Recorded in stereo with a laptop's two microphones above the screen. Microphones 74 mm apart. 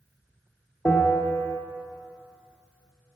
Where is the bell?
30° left (ahead or behind), 1.4 m.